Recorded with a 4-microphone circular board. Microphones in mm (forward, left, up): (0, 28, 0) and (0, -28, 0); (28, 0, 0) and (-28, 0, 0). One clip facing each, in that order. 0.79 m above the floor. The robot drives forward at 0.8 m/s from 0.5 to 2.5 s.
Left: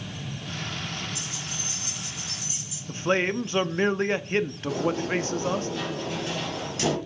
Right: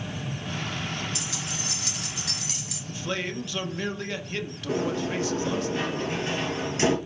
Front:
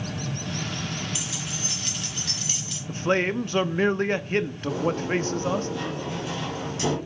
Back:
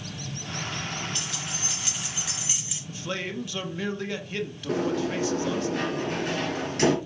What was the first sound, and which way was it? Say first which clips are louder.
Keys jangling: right 2 dB, front 1 dB; 80° right.